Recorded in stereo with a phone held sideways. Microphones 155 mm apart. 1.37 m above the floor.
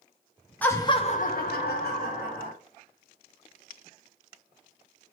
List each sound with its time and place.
0.6 s laughter: 10° left (ahead or behind), 0.9 m; by 2.5 s 70° left (ahead or behind), 1.7 m